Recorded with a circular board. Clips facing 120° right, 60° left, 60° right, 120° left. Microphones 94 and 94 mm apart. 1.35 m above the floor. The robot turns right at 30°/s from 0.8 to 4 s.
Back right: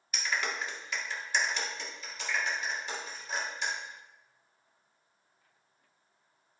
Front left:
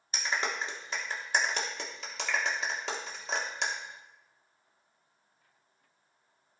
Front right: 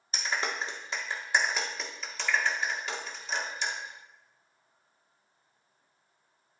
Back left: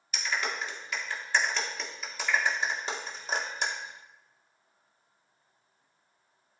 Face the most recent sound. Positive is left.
turn(degrees=95)